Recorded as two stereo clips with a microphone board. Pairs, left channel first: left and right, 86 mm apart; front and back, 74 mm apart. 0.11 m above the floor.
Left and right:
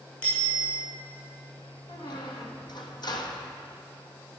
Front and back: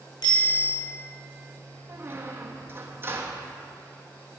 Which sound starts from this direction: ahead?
A bicycle bell, at 0.2 s.